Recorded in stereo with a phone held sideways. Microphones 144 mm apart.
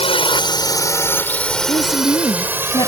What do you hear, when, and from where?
0.0 s a drone: 40° left (ahead or behind); by 2.9 s 20° right (ahead or behind)
1.7 s a woman speaking: 35° left (ahead or behind)